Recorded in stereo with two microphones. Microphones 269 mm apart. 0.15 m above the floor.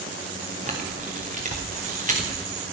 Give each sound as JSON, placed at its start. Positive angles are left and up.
{"t": 0.7, "sound": "a camera shutter", "side_deg": -30, "distance_m": 2.5}